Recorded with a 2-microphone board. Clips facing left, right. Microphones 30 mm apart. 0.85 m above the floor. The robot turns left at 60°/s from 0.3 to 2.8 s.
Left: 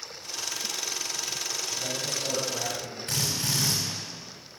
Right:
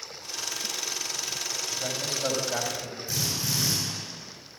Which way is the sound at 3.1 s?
70° left (ahead or behind).